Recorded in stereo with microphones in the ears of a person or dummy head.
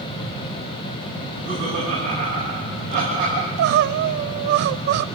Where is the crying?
60° right (ahead or behind), 0.5 m.